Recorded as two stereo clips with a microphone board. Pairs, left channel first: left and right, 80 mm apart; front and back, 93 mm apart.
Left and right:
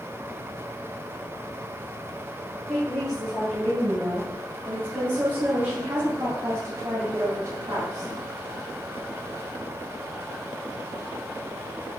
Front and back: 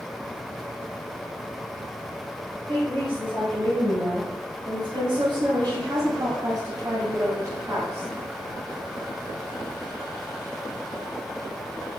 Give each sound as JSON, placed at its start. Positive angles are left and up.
{"t": 2.7, "sound": "a woman speaking", "azimuth_deg": -175, "distance_m": 3.5}